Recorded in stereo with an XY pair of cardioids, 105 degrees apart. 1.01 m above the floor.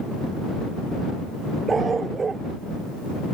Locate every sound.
1.7 s a dog barking: 35° right